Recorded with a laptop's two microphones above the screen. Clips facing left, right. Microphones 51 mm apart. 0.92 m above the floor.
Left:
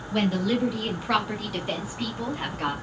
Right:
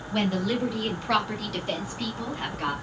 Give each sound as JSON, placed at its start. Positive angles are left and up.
{"t": 0.1, "sound": "a woman speaking", "side_deg": 0, "distance_m": 1.3}